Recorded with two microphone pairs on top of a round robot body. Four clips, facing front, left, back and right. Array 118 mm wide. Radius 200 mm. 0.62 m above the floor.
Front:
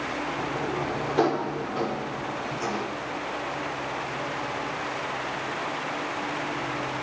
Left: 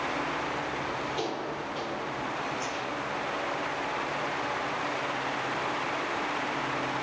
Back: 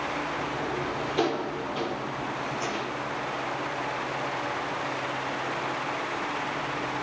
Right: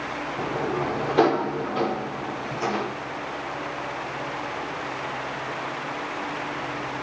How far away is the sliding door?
About 0.8 m.